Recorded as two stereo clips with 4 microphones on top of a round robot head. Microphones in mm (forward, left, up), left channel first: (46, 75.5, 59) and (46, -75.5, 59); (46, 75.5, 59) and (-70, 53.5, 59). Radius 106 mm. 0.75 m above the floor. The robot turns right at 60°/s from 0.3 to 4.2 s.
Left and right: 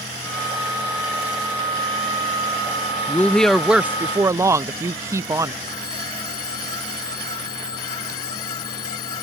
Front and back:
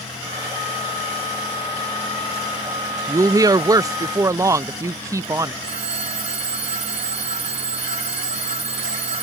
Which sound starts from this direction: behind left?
A woman speaking, at 3.1 s.